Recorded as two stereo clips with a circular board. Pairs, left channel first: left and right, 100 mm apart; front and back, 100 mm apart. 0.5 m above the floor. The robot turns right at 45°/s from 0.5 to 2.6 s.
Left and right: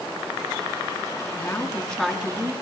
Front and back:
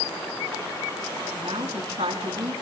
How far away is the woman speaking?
About 5 m.